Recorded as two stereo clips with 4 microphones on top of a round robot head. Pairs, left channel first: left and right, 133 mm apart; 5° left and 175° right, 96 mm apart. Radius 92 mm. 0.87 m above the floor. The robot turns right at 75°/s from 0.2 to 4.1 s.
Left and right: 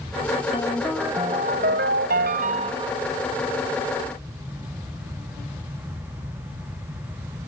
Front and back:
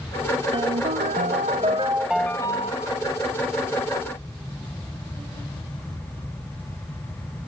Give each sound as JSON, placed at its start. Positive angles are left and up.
{"t": 0.5, "sound": "a ringtone", "azimuth_deg": 150}